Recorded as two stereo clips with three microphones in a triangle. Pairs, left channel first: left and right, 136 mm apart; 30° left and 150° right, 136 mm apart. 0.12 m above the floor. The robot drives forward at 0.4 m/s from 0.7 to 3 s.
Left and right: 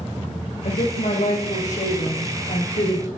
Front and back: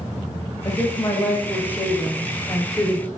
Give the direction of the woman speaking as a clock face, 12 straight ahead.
9 o'clock.